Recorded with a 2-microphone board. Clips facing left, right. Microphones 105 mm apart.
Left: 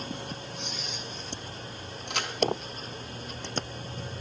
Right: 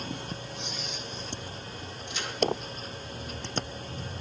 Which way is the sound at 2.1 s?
65° left (ahead or behind).